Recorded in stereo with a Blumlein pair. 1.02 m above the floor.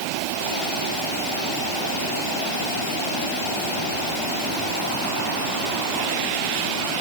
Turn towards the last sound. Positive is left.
No sound to turn to.